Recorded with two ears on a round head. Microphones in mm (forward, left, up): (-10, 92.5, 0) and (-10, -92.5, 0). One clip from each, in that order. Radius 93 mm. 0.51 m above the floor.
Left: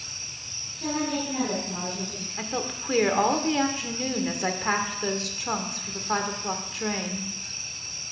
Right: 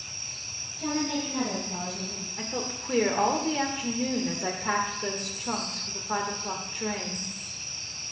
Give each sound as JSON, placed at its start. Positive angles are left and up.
{"t": 0.8, "sound": "a woman speaking", "side_deg": -5, "distance_m": 7.5}
{"t": 2.4, "sound": "a woman speaking", "side_deg": 30, "distance_m": 1.8}